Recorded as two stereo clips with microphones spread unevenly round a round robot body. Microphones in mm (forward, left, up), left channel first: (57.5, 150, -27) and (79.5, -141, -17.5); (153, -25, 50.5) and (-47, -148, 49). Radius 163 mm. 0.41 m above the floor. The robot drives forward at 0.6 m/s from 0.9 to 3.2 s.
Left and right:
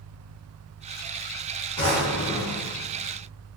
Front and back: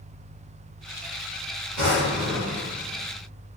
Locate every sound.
1.8 s a drawer: 165° left, 1.0 m; by 2.7 s 170° left, 1.5 m